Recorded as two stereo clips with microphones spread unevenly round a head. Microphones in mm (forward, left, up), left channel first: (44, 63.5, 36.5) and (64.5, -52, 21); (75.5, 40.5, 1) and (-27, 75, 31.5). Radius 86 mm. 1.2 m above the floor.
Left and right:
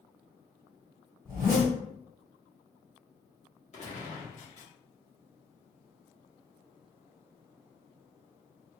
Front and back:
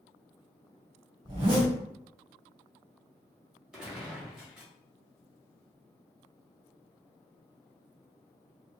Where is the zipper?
160° right, 1.7 m.